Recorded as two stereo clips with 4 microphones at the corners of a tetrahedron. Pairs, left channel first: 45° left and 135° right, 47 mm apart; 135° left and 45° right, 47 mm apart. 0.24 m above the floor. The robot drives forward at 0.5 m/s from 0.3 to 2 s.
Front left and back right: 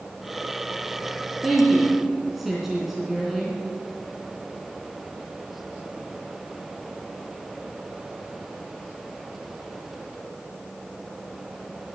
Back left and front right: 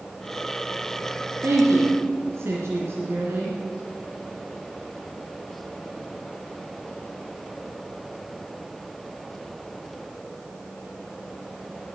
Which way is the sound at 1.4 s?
40° right.